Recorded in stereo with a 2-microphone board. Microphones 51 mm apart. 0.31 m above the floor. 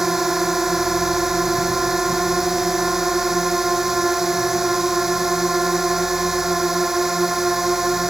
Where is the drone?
5° right (ahead or behind).